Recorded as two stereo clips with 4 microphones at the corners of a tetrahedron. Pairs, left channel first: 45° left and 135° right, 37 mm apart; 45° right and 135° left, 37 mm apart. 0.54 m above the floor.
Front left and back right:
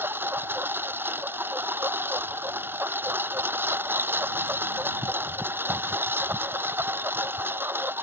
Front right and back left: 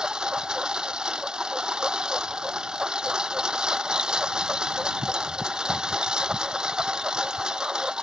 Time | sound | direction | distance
0.0 | a lawn mower | 160° right | ?